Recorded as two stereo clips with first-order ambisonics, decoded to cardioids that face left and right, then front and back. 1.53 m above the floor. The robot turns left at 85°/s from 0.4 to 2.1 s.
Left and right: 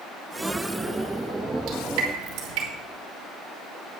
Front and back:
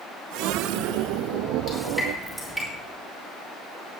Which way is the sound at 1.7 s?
55° right.